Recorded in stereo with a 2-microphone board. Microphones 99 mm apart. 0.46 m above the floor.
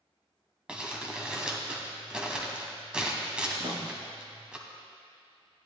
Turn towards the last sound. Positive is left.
turn(degrees=-60)  # may be behind; listen again after turning